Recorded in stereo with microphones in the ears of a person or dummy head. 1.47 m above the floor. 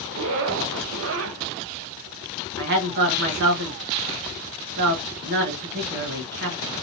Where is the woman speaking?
65° right (ahead or behind), 1.3 m.